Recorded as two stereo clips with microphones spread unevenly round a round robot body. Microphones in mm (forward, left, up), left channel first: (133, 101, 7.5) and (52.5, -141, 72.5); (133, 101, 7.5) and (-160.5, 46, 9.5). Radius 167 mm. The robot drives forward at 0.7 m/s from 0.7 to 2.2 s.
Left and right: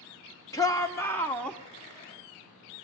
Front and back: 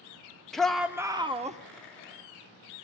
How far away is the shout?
About 1.3 m.